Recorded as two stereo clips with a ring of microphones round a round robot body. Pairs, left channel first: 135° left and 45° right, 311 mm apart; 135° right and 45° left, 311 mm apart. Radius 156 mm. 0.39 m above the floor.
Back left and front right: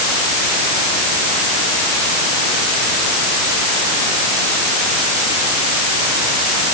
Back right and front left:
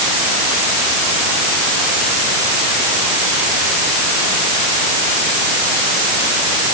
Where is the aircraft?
No aircraft in this recording.